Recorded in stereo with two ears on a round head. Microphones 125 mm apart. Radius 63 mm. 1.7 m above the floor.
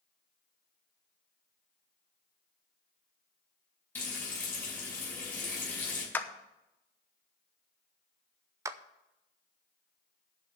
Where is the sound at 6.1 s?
15° left (ahead or behind), 0.9 m.